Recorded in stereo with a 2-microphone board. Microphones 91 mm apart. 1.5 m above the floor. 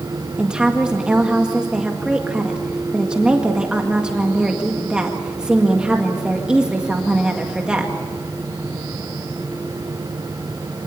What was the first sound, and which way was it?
A woman speaking, 10° right (ahead or behind).